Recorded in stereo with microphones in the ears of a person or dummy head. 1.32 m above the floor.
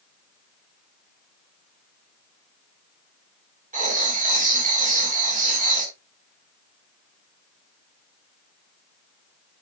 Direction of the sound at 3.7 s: 30° right (ahead or behind).